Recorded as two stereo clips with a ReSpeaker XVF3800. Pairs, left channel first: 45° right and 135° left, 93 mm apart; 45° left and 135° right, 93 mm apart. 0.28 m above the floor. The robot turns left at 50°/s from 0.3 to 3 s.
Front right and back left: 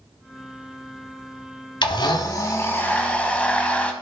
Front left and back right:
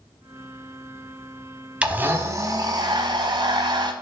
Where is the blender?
60° right, 1.1 m; by 3.9 s 120° right, 1.1 m.